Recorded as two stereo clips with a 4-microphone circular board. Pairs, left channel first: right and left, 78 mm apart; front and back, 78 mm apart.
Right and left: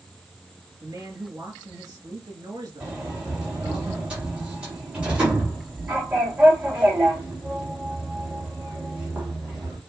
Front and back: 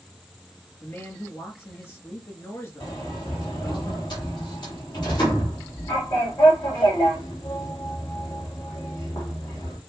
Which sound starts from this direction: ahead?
A sliding door, at 2.8 s.